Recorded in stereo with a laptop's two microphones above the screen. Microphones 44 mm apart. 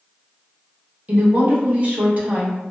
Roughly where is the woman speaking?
Right.